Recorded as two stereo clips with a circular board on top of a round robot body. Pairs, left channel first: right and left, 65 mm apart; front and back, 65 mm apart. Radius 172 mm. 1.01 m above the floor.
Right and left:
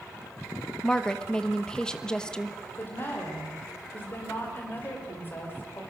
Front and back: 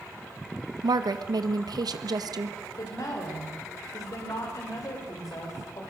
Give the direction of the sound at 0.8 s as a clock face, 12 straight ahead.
6 o'clock.